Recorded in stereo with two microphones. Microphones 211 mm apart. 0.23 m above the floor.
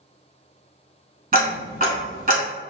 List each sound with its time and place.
1.3 s ticking: 45° right (ahead or behind), 0.8 m